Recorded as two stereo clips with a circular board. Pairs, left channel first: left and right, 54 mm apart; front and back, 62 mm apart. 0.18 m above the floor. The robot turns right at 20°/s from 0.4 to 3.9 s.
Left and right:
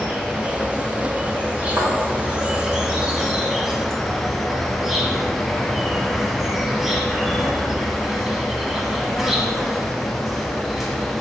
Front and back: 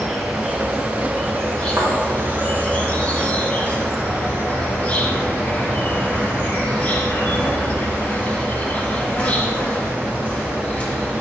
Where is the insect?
85° right, 1.4 m; by 11.2 s 15° right, 1.4 m.